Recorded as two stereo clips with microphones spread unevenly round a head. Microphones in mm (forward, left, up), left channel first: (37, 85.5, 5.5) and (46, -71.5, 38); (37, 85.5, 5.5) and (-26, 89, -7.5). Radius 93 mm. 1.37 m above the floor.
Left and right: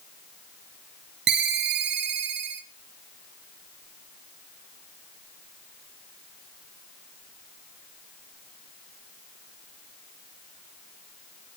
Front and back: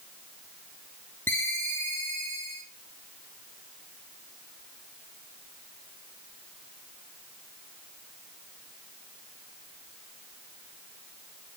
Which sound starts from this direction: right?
A ringtone, at 1.3 s.